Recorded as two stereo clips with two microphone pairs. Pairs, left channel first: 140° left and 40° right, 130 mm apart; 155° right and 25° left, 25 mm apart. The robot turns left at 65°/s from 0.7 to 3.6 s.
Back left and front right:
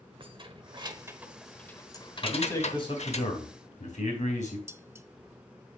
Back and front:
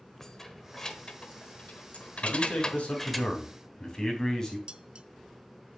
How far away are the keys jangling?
About 0.9 m.